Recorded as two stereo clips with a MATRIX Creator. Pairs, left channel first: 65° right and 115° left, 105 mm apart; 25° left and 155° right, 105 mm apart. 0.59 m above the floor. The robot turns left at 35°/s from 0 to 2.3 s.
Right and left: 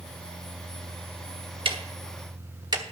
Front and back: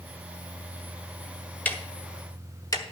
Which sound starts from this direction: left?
Ticking, at 1.6 s.